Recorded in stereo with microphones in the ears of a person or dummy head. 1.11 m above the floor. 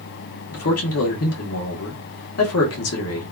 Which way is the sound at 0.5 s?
65° left (ahead or behind).